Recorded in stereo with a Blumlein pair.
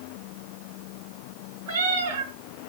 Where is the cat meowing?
55° right, 5 m.